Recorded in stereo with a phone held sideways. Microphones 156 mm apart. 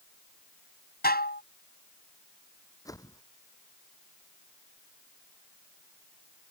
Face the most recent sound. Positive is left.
turn(degrees=20)  # may be behind; listen again after turning